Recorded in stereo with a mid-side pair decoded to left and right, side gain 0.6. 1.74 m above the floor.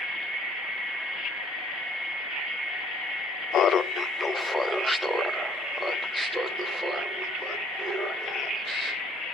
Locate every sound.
3.5 s laughter: 50° left, 0.6 m; by 9.0 s 20° right, 3 m